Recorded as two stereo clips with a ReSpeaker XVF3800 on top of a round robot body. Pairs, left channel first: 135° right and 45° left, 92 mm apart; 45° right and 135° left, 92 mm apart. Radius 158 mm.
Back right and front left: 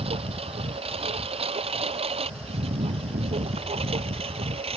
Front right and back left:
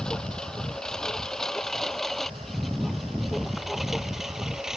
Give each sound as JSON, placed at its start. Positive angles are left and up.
{"t": 0.0, "sound": "a lawn mower", "azimuth_deg": 35}